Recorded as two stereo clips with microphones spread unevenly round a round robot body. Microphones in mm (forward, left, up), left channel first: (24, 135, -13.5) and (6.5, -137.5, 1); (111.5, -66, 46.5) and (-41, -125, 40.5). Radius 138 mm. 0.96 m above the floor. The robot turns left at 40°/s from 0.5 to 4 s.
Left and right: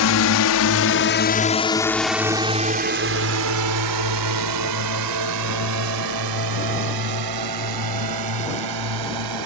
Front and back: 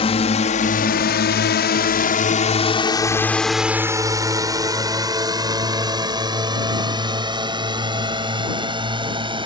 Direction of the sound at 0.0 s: 75° left.